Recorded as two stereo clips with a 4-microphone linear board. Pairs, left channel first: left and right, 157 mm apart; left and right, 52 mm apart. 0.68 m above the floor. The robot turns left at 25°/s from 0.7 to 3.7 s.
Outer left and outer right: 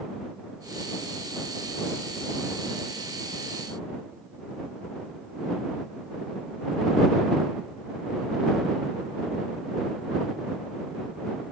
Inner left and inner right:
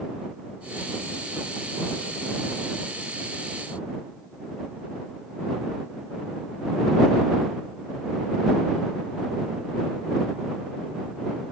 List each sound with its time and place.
Only background noise.